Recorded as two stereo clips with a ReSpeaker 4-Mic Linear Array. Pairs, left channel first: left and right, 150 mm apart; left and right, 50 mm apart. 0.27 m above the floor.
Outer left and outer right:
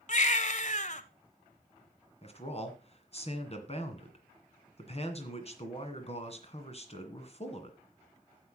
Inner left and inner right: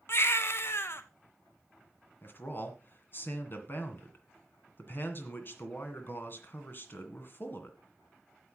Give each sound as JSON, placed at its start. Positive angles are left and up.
{"t": 0.1, "sound": "a baby crying", "side_deg": 55, "distance_m": 0.9}
{"t": 2.2, "sound": "a man speaking", "side_deg": 45, "distance_m": 2.0}